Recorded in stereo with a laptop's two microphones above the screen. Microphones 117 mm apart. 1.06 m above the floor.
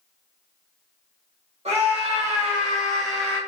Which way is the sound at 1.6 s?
65° right (ahead or behind).